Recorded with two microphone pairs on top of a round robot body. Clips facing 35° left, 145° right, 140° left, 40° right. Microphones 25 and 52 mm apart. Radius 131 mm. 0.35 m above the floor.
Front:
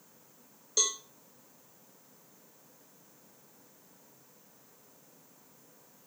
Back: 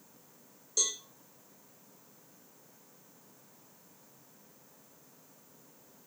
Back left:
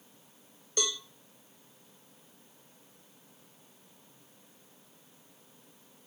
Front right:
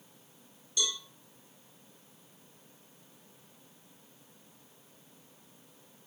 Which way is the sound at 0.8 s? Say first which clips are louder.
Front 2 dB, back left 1 dB; 100° left.